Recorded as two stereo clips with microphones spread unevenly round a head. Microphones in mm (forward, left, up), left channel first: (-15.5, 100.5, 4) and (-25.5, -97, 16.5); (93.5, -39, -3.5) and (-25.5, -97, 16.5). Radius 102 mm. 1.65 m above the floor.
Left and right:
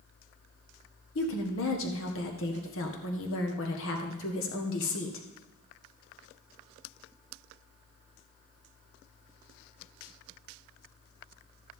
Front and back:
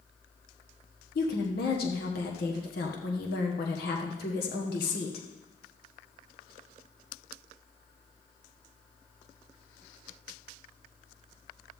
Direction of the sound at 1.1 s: 55° left.